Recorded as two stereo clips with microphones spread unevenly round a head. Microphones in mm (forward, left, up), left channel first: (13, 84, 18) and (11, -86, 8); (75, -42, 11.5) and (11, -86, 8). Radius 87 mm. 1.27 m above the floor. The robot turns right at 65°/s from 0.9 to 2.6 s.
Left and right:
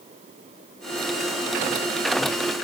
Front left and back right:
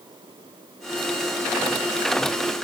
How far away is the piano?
No piano in this recording.